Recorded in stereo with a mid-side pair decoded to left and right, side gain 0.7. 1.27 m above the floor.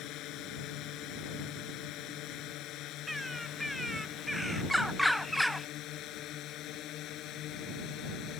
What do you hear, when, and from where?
0.0 s a drone: 55° left; by 8.4 s 50° left
3.1 s a bird: straight ahead